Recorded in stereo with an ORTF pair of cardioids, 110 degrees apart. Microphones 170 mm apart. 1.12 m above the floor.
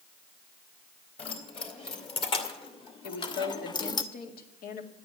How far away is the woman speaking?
About 2 m.